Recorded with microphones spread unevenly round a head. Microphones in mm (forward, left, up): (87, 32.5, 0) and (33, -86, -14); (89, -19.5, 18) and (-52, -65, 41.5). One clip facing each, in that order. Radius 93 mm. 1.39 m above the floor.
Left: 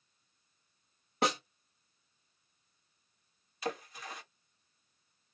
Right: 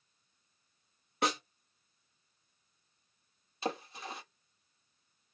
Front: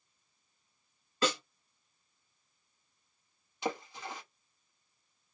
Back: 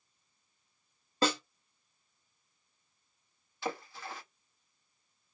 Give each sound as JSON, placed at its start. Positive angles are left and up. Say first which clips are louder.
{"t": 1.2, "sound": "a snare drum", "louder": "left 1 dB, back 2 dB", "azimuth_deg": 135, "distance_m": 0.9}
{"t": 3.6, "sound": "a splash", "louder": "right 1 dB, front 2 dB", "azimuth_deg": -50, "distance_m": 1.0}